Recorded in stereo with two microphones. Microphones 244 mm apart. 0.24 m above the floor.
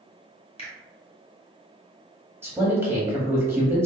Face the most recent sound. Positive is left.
turn(degrees=-10)  # may be behind; listen again after turning